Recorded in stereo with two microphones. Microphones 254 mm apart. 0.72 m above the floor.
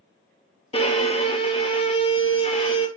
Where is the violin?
25° left (ahead or behind), 0.7 m.